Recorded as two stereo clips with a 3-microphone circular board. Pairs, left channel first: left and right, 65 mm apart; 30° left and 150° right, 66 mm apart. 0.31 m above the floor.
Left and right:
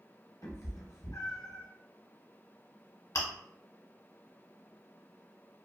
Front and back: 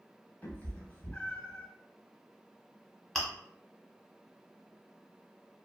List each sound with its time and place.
0.4 s a cat meowing: 90° left, 0.7 m
3.1 s chewing: 115° left, 0.9 m